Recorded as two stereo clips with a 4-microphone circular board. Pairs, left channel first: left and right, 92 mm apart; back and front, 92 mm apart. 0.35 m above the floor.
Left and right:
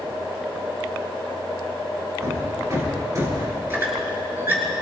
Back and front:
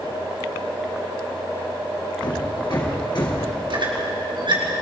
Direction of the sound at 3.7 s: 25° right.